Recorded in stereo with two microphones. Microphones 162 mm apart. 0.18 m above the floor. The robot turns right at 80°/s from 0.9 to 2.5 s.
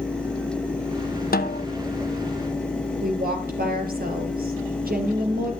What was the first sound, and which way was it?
A snare drum, 75° left (ahead or behind).